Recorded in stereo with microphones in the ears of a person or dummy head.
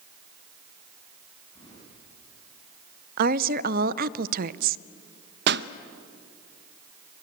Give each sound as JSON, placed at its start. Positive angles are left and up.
{"t": 1.6, "sound": "keys jangling", "side_deg": 25, "distance_m": 9.5}
{"t": 3.2, "sound": "a woman speaking", "side_deg": -55, "distance_m": 0.7}
{"t": 5.5, "sound": "a pop", "side_deg": -70, "distance_m": 0.7}